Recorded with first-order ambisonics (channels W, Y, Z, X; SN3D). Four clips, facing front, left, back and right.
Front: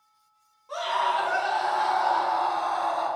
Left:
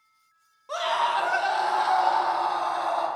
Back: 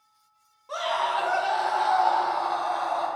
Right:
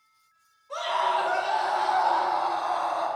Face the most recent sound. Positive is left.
turn(degrees=90)